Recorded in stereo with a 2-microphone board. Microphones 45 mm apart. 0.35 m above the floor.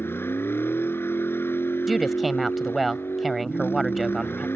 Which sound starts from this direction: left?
A vehicle, at 0.0 s.